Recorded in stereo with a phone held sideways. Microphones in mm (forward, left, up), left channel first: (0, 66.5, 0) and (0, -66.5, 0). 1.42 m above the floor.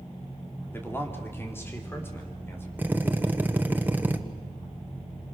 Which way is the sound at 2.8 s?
15° right (ahead or behind).